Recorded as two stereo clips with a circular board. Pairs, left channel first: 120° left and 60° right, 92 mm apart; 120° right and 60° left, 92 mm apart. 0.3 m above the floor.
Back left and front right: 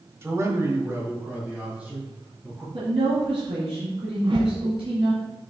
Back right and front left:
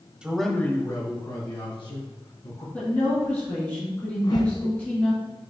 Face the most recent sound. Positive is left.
turn(degrees=-85)